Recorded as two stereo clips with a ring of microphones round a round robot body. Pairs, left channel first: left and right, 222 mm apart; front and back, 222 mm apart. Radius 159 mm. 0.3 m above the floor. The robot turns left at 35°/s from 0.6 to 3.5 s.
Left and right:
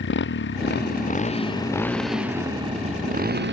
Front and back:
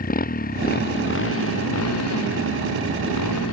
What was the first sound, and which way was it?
A motorcycle, 50° left.